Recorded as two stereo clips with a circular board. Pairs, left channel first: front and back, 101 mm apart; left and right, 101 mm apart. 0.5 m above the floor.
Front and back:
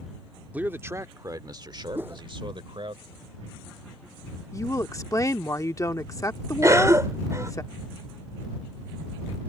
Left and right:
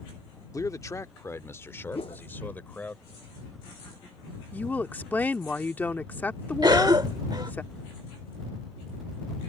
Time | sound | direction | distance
0.5 | a man speaking | 115° left | ?
1.9 | a whoosh | 110° left | ?
4.5 | a woman speaking | 30° left | ?
6.6 | a cough | 125° right | ?